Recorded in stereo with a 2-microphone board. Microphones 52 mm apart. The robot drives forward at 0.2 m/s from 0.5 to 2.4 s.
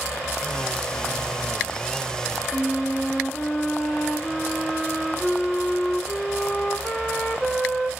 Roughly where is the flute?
Centre.